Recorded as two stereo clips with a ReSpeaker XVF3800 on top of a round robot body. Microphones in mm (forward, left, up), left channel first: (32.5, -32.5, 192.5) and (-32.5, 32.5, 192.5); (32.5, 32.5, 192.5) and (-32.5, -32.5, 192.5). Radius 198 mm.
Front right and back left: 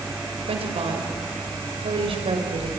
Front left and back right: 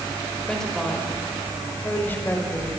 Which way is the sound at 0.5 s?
130° left.